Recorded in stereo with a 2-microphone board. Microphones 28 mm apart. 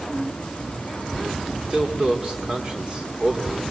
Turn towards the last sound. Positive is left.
turn(degrees=-25)  # may be behind; listen again after turning